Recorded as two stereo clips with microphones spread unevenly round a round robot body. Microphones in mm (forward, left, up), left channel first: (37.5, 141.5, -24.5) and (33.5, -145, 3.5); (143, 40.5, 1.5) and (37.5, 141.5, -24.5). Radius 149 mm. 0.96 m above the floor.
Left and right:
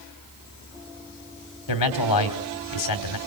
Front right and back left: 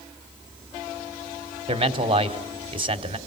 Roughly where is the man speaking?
Left.